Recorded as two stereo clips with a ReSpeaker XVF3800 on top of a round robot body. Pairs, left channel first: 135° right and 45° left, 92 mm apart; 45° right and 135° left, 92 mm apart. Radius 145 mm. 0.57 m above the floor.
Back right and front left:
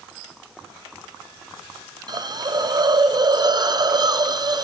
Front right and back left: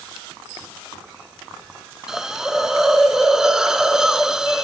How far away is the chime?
No chime in this recording.